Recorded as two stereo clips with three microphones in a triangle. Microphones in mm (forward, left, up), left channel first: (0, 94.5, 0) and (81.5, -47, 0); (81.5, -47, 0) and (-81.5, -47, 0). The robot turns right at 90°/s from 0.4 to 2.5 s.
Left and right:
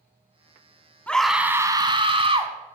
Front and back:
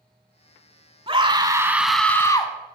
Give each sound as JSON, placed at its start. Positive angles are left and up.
{"t": 1.1, "sound": "a scream", "azimuth_deg": -165, "distance_m": 1.1}